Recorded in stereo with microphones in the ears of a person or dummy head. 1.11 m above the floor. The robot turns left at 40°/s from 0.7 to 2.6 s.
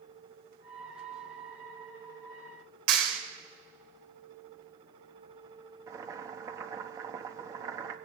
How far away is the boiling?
About 1.1 m.